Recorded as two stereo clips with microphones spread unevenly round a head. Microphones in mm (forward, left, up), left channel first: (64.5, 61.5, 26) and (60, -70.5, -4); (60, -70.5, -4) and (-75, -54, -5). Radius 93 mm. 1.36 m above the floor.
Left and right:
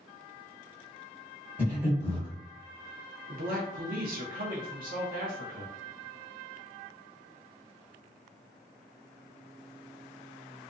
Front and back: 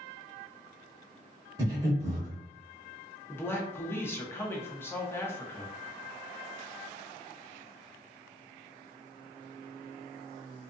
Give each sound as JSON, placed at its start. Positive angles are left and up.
{"t": 1.6, "sound": "breathing", "azimuth_deg": 170, "distance_m": 1.1}
{"t": 3.3, "sound": "a man speaking", "azimuth_deg": -80, "distance_m": 0.9}